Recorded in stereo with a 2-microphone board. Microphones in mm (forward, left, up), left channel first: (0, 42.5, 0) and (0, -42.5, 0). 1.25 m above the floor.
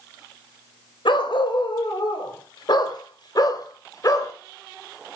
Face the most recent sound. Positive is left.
turn(degrees=40)  # may be behind; listen again after turning